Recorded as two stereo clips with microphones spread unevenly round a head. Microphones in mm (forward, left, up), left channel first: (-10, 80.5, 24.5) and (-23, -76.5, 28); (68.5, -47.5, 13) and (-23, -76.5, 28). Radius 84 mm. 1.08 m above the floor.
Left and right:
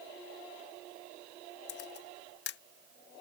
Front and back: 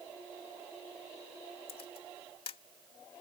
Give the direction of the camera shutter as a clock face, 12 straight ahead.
10 o'clock.